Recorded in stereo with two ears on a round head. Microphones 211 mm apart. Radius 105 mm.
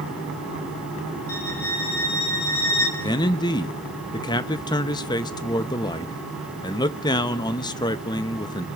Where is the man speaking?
20° left (ahead or behind), 0.6 m.